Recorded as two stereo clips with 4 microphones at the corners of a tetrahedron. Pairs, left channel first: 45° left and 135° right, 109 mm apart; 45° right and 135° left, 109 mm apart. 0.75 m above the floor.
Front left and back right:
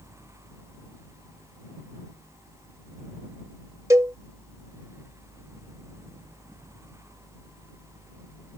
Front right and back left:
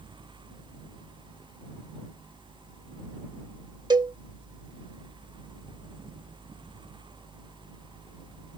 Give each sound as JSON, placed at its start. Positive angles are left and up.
{"t": 3.9, "sound": "a cowbell", "azimuth_deg": 175}